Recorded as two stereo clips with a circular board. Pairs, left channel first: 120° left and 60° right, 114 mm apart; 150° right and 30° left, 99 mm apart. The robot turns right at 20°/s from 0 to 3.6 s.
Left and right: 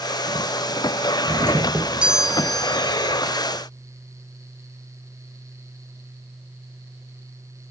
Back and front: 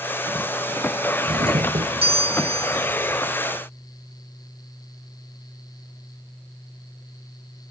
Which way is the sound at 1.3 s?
10° left.